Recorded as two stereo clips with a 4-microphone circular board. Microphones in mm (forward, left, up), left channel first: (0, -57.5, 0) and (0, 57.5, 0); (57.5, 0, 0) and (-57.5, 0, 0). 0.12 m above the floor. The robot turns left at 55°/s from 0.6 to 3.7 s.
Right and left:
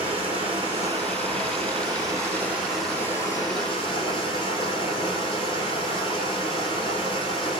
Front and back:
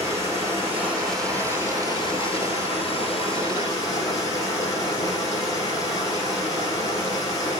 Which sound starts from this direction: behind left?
Running water, at 0.0 s.